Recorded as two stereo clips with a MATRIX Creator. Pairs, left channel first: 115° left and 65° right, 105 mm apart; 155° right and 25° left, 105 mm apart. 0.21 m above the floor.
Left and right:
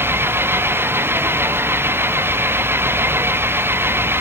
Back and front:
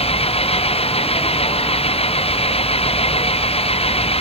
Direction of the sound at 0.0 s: 135° right.